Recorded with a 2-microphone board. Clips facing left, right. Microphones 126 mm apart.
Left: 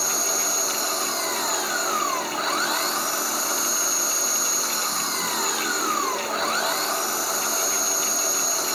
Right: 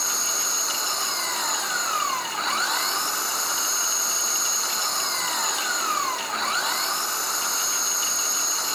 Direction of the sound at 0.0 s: Centre (ahead or behind).